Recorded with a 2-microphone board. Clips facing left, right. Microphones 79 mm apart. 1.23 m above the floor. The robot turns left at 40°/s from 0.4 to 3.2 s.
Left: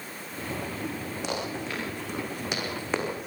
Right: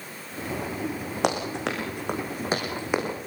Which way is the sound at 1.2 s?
70° right (ahead or behind).